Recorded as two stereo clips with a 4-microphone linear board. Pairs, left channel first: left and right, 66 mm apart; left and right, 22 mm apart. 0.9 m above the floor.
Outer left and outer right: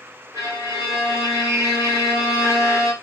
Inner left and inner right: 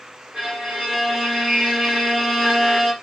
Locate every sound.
0.3 s a violin: 55° right (ahead or behind), 1.8 m